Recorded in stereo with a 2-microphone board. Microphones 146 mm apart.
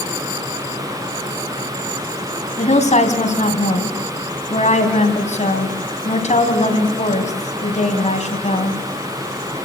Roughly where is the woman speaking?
Left.